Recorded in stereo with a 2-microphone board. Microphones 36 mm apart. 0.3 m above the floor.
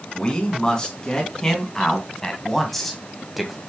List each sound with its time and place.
0.1 s a man speaking: 20° left (ahead or behind), 3 m; by 3.6 s 5° right (ahead or behind), 1.8 m